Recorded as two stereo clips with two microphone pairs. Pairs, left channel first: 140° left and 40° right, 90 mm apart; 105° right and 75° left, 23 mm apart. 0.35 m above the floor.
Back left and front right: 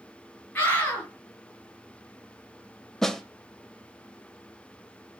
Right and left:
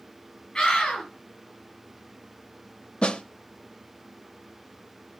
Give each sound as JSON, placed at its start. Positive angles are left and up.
{"t": 0.6, "sound": "a scream", "azimuth_deg": -150, "distance_m": 5.0}
{"t": 3.0, "sound": "a snare drum", "azimuth_deg": -135, "distance_m": 0.6}